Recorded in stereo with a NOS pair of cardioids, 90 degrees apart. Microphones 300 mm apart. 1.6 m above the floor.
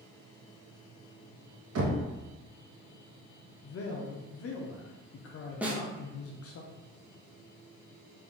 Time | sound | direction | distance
1.8 | knocking | 55° right | 1.1 m
3.6 | a man speaking | 50° left | 0.7 m
5.6 | a snare drum | 5° right | 1.0 m